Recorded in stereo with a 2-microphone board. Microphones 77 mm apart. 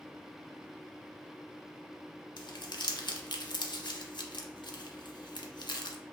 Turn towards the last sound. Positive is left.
turn(degrees=70)  # may be behind; listen again after turning